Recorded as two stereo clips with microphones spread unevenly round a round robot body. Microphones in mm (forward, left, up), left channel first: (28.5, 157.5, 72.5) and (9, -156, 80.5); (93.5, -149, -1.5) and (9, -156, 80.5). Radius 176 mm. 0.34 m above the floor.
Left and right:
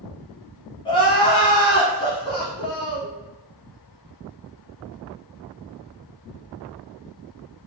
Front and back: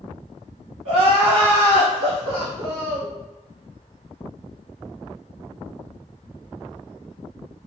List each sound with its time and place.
0.8 s crying: 160° left, 0.6 m